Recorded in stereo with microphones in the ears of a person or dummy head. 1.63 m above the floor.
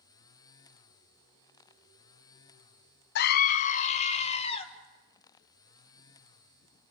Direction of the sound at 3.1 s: 55° left (ahead or behind).